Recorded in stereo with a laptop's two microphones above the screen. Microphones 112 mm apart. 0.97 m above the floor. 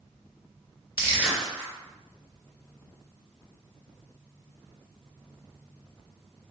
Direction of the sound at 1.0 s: 20° right (ahead or behind).